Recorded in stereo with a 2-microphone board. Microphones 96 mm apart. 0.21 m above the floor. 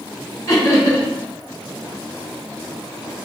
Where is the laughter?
35° left (ahead or behind), 1.9 m.